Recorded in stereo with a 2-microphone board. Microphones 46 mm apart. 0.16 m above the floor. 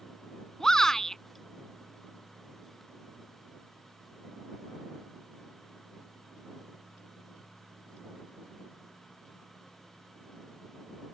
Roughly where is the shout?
Centre.